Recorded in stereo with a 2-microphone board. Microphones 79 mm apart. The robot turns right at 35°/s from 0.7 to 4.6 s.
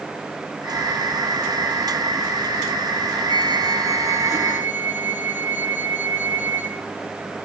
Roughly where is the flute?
Right.